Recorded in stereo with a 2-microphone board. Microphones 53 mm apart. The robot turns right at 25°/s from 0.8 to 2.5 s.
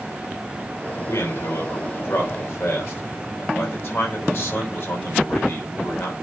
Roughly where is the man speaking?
Left.